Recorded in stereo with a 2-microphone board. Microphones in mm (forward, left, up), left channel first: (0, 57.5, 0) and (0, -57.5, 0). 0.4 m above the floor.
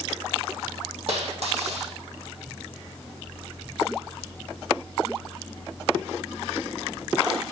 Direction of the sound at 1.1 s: 65° right (ahead or behind).